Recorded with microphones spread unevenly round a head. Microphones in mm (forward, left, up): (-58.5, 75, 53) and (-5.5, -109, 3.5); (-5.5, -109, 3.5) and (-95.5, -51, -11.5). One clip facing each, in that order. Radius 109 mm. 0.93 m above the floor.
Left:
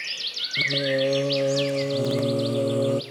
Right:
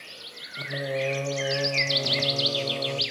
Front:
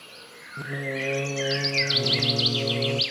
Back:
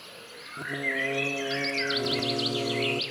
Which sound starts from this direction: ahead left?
Singing, at 0.6 s.